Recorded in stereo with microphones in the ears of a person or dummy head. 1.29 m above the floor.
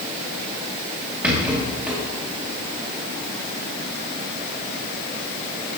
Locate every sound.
1.2 s a rattle: 10° right (ahead or behind), 2.5 m